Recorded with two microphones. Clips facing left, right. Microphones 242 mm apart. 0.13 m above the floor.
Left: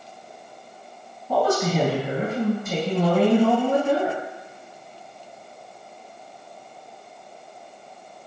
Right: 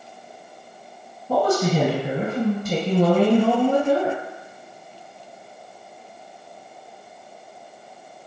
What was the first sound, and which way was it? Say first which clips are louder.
A woman speaking: right 2 dB; 40° right (ahead or behind).